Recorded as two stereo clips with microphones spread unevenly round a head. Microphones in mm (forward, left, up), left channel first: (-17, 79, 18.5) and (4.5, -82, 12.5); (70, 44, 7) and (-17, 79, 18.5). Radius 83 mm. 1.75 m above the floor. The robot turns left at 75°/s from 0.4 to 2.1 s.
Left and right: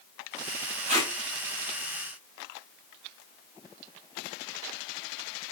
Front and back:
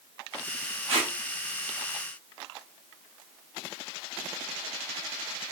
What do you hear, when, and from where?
0.9 s tape being pulled: 130° right, 3 m; by 1.1 s 150° right, 3 m